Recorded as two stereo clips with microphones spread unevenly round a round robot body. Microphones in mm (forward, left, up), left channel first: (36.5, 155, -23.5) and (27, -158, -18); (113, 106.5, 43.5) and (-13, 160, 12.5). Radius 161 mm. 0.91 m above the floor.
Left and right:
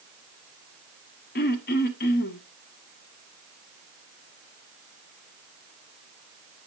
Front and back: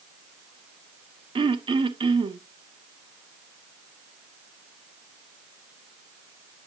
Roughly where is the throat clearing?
Behind left.